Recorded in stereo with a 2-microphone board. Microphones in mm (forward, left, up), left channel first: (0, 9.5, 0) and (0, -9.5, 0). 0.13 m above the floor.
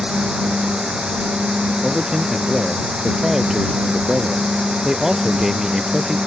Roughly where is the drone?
Right.